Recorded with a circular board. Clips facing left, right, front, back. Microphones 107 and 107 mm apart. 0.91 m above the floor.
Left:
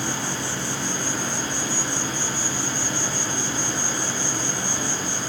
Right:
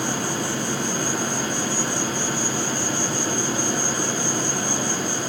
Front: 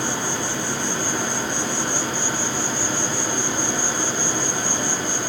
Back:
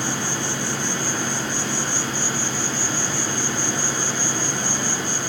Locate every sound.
0.0 s an insect: 75° right, 3.5 m